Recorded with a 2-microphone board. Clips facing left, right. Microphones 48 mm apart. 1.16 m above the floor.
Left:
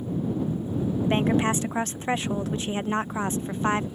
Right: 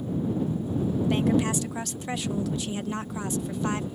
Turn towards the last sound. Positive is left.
turn(degrees=35)  # may be behind; listen again after turning